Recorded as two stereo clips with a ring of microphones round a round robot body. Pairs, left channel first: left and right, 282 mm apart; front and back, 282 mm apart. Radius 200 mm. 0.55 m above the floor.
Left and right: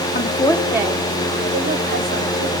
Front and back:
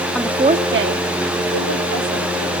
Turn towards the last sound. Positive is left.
turn(degrees=-145)